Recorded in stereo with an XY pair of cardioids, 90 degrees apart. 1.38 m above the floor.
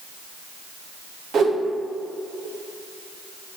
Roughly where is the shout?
I don't hear a shout.